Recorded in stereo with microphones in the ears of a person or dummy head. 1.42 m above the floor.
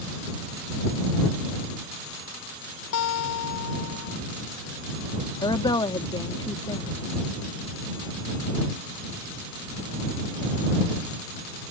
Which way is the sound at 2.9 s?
65° left (ahead or behind).